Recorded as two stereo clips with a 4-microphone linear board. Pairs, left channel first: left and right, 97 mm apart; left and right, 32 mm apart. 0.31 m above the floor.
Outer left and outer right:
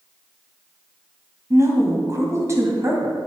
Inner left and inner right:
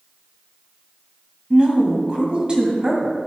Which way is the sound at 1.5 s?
30° right (ahead or behind).